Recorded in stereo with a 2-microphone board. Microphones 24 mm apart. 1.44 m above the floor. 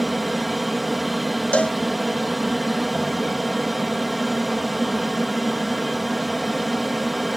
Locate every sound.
0.0 s an aircraft: centre (ahead or behind)
1.5 s a cowbell: 80° left